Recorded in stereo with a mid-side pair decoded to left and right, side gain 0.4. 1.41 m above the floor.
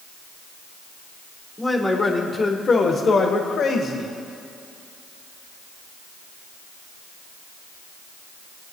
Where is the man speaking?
15° left, 1.8 m; by 4.1 s 75° left, 2.0 m.